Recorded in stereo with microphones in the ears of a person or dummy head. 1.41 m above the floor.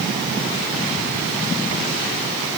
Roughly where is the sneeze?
No sneeze in this recording.